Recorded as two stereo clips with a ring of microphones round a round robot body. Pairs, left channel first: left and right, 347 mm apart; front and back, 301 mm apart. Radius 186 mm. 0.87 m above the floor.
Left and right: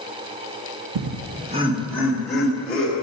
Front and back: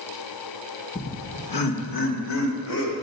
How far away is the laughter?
About 0.5 m.